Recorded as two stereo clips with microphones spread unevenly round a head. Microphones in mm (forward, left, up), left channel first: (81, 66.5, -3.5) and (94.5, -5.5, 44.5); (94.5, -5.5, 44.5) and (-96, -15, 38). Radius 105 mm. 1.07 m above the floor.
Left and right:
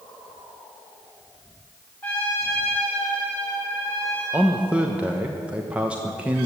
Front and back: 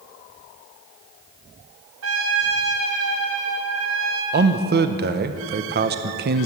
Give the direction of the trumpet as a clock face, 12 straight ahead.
6 o'clock.